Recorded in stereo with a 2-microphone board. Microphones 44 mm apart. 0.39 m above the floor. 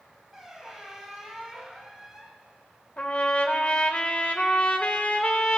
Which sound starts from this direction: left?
A trumpet, at 3.0 s.